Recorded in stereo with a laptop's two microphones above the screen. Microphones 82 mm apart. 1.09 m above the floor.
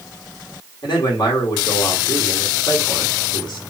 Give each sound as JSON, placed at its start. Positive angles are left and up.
{"t": 0.8, "sound": "a man speaking", "side_deg": 60, "distance_m": 1.8}